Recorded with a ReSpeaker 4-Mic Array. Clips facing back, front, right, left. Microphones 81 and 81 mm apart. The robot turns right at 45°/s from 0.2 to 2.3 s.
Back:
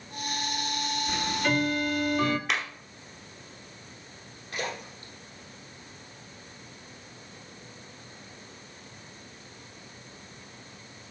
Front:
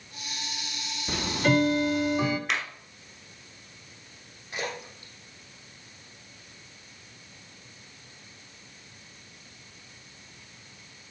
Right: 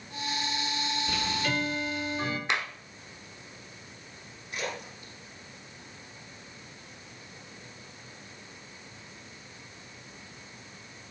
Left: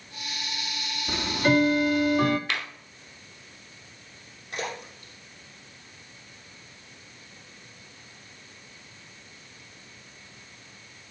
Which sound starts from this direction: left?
A splash, at 4.5 s.